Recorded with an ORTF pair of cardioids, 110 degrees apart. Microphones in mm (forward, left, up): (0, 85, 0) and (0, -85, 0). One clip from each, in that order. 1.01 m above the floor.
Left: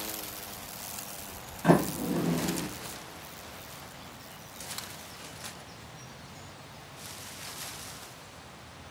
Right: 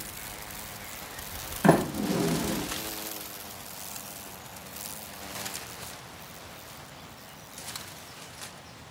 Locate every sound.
1.6 s a sliding door: 55° right, 0.9 m